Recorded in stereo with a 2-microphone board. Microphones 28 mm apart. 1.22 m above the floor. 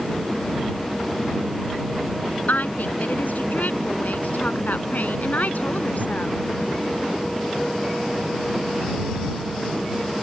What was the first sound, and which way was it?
A woman speaking, 75° left (ahead or behind).